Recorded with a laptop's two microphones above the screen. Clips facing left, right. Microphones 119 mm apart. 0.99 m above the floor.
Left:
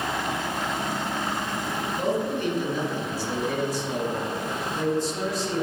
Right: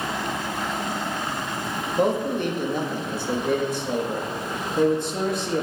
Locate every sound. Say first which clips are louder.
2.0 s a man speaking: right 5 dB; 50° right (ahead or behind), 1.6 m